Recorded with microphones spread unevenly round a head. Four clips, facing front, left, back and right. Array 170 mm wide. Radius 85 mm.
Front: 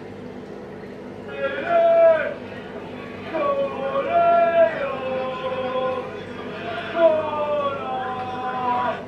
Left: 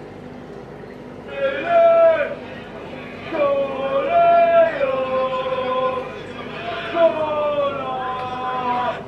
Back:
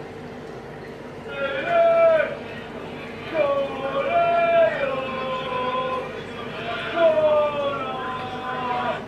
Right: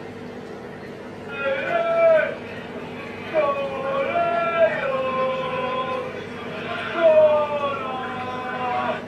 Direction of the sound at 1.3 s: 95° left.